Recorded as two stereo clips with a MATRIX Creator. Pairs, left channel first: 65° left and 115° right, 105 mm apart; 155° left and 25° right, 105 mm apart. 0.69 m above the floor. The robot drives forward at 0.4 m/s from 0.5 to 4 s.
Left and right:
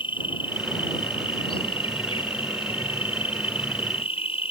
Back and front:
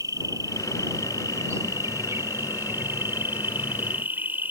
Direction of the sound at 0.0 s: 35° left.